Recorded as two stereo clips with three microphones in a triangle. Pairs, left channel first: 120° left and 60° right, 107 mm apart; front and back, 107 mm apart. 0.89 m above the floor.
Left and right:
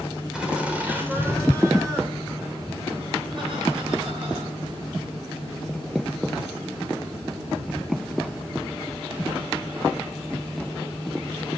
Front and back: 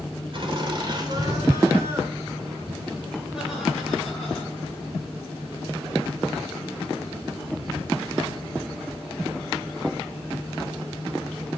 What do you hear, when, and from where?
0.3 s laughter: 145° right, 3 m; by 4.8 s 80° right, 4.5 m